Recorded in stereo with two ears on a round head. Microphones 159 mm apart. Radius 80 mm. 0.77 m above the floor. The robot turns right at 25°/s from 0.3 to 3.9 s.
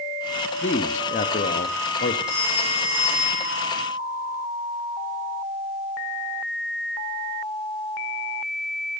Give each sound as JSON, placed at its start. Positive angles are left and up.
{"t": 0.6, "sound": "a man speaking", "azimuth_deg": 50, "distance_m": 0.9}
{"t": 2.3, "sound": "a phone ringing", "azimuth_deg": 15, "distance_m": 7.5}